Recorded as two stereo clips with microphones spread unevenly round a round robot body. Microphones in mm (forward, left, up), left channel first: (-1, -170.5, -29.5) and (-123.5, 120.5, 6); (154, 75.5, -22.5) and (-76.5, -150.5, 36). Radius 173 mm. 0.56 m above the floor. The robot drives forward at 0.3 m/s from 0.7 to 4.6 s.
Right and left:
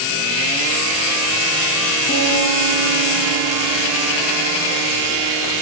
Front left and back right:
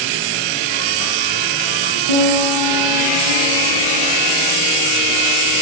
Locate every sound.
2.1 s a piano: 135° right, 7 m; by 4.1 s 140° right, 7.5 m